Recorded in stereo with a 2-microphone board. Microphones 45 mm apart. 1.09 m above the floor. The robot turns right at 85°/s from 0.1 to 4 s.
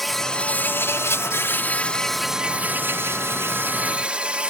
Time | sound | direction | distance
0.0 | an insect | straight ahead | ?